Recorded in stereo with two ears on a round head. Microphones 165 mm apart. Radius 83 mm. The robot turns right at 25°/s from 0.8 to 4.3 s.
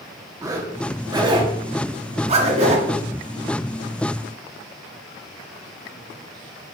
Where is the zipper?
20° right (ahead or behind), 1.4 m; by 2.9 s 35° right (ahead or behind), 1.4 m.